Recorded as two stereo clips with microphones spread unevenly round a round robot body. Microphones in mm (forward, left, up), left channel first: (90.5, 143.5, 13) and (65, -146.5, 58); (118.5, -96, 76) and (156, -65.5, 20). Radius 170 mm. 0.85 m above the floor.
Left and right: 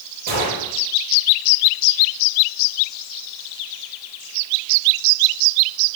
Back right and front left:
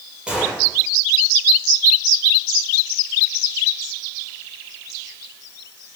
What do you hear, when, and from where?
0.3 s a gunshot: 40° right, 8.5 m